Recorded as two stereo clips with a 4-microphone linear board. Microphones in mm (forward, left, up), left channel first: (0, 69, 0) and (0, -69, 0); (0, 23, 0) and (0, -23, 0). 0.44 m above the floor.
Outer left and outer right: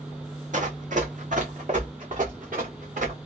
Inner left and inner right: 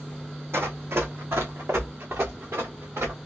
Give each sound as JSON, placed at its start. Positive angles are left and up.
{"t": 0.5, "sound": "running footsteps", "side_deg": -60, "distance_m": 1.0}